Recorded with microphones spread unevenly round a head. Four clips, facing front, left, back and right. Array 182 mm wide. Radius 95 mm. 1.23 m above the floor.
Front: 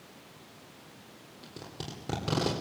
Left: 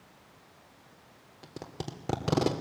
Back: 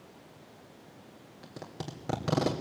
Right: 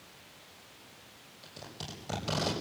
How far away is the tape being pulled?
About 3 m.